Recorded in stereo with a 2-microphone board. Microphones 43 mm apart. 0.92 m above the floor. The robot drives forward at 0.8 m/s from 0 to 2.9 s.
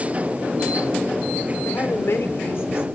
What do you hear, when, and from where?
1.6 s a woman speaking: 80° left, 2.5 m; by 2.8 s 65° left (ahead or behind), 3 m